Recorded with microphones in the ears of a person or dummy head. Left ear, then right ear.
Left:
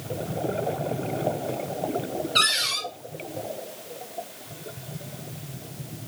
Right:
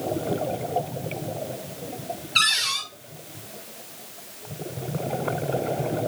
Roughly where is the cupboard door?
Centre.